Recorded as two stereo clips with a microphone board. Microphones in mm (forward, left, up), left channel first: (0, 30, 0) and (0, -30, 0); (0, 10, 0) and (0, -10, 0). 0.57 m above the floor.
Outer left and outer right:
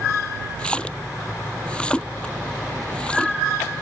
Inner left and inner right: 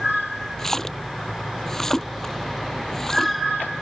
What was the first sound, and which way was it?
A splash, 15° left (ahead or behind).